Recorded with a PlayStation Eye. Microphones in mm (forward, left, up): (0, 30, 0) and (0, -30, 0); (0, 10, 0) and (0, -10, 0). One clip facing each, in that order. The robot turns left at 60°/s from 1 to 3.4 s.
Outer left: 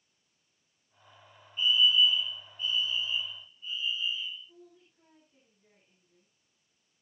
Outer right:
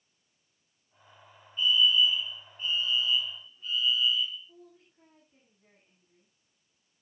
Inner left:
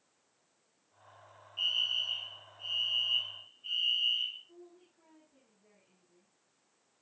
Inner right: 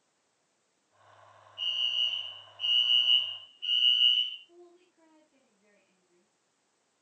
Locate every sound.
1.6 s a fire alarm: 30° left, 4.5 m; by 4.4 s 80° right, 4.5 m
4.5 s a woman speaking: 25° right (ahead or behind), 8.5 m